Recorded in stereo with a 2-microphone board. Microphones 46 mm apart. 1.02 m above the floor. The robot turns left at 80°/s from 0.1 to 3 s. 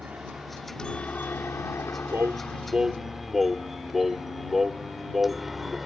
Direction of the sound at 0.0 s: 35° right (ahead or behind).